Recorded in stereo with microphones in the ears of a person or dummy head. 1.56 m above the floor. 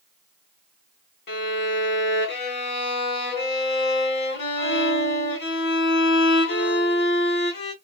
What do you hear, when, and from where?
1.3 s a violin: 60° left (ahead or behind), 0.9 m